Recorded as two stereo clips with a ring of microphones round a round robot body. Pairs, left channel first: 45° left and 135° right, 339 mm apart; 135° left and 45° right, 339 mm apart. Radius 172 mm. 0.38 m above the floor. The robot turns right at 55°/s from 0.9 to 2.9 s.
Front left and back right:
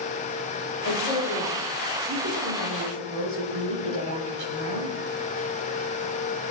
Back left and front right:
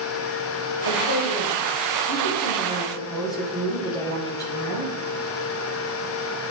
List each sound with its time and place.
0.8 s a woman speaking: 105° left, 8 m; by 4.9 s 145° right, 8 m